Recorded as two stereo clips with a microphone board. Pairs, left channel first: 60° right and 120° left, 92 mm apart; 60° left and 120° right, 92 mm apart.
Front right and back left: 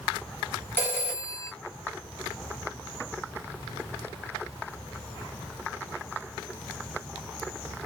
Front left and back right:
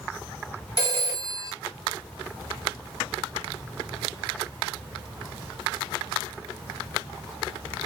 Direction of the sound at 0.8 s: 10° left.